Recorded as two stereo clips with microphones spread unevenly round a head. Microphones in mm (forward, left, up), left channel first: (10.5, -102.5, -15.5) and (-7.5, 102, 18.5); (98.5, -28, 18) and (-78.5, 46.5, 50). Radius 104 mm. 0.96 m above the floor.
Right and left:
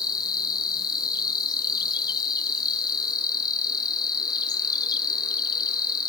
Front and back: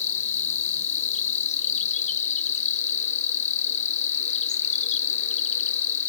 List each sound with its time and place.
0.0 s an insect: 30° right, 0.8 m